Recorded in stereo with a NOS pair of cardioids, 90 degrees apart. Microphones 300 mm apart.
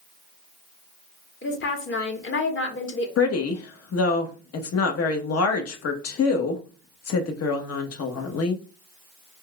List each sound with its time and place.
1.4 s a woman speaking: 40° left, 1.3 m
3.2 s a woman speaking: 55° left, 1.0 m